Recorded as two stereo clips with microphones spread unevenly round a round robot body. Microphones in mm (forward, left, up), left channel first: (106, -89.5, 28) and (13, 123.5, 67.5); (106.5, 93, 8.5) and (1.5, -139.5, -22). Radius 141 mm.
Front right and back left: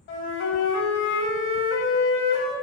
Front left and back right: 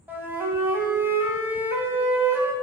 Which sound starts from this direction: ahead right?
A flute, at 0.1 s.